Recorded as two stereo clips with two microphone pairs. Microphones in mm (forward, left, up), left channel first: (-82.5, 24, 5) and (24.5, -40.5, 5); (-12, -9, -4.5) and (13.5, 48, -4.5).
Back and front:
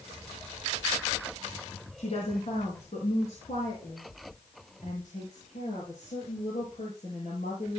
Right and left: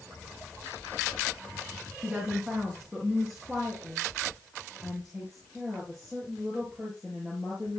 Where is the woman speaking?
140° left, 3.5 m; by 7.8 s 160° left, 7.5 m.